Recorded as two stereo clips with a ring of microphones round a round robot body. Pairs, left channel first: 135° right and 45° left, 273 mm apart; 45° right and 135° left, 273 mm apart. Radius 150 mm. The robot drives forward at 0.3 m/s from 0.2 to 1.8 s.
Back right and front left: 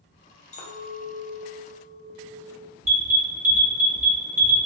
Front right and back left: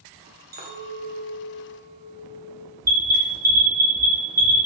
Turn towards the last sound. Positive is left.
turn(degrees=80)